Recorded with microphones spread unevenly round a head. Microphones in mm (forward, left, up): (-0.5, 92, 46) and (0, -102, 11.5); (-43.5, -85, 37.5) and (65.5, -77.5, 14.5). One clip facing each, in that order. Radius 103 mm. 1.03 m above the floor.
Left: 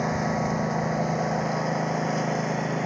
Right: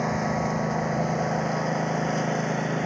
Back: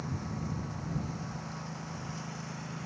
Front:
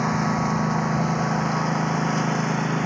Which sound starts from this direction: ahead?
A lawn mower, at 0.0 s.